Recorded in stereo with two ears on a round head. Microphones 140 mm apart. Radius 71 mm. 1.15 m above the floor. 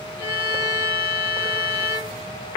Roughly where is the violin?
Left.